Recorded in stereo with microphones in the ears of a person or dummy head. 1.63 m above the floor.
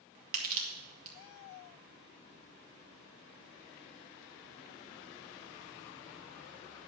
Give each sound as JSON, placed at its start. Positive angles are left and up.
{"t": 0.3, "sound": "crushing", "side_deg": -50, "distance_m": 2.0}